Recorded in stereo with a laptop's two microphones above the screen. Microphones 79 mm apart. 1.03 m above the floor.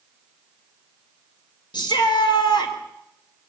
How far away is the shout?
About 4.5 m.